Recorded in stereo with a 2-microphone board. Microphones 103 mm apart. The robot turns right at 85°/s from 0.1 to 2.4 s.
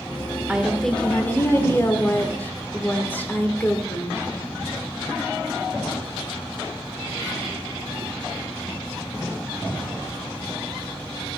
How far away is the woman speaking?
About 1.2 m.